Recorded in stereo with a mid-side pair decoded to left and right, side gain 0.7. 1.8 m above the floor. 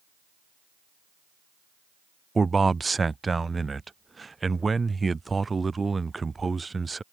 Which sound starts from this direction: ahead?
A man speaking, at 2.4 s.